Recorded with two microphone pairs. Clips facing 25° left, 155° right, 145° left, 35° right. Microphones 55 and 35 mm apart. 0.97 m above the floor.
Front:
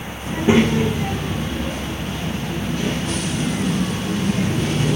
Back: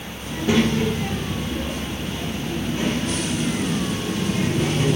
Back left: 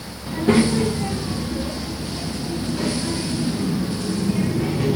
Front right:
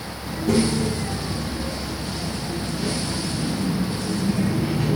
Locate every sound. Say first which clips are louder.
0.3 s a child speaking: front 4 dB, back left 4 dB; 85° left, 1.0 m; by 5.0 s 155° left, 3 m